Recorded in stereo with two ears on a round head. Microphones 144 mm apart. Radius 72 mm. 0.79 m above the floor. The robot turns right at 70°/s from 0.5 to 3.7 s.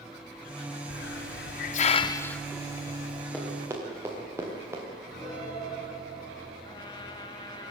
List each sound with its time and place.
0.9 s a hiss: 65° left (ahead or behind), 0.5 m; by 3.2 s 50° right (ahead or behind), 0.5 m
3.3 s running footsteps: 10° left (ahead or behind), 5.5 m; by 4.8 s 20° right (ahead or behind), 4 m
5.1 s a piano: 25° left (ahead or behind), 9 m
6.6 s a trumpet: 30° left (ahead or behind), 1.1 m